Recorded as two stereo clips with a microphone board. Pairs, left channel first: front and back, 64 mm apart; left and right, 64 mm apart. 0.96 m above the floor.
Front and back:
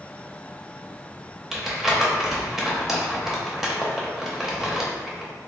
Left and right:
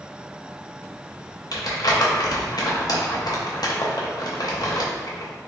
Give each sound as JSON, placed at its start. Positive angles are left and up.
{"t": 1.5, "sound": "crumpling", "azimuth_deg": 95, "distance_m": 0.6}